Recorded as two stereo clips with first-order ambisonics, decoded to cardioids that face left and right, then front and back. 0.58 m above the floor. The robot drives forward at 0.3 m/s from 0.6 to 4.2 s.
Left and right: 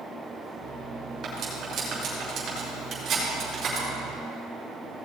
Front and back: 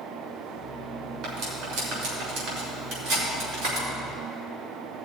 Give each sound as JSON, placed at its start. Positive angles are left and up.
{"t": 1.2, "sound": "cutlery clinking", "azimuth_deg": -145, "distance_m": 4.0}